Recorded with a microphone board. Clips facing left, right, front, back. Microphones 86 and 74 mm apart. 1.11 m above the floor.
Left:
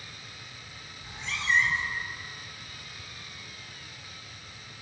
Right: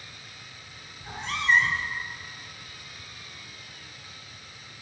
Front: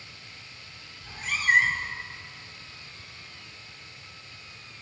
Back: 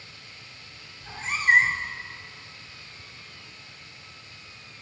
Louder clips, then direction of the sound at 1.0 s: Right 6 dB, back 2 dB; 120° right.